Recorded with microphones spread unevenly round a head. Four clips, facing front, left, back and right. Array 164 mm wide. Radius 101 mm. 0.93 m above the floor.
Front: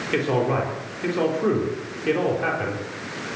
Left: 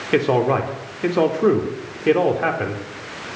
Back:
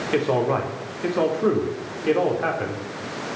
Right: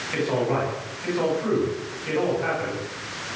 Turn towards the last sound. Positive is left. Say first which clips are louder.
# left 6 dB, back 1 dB
turn(degrees=100)